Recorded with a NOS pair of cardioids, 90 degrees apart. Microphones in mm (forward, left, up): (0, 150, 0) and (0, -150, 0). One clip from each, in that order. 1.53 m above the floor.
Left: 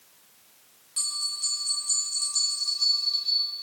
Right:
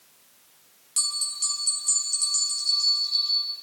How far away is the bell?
About 6 m.